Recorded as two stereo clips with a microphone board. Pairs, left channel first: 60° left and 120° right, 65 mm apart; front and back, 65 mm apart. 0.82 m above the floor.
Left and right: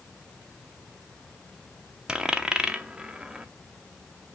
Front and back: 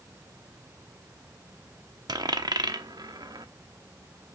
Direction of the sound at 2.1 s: 160° left.